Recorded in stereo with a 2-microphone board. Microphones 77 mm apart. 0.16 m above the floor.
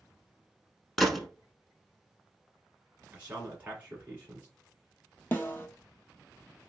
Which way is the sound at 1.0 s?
5° left (ahead or behind).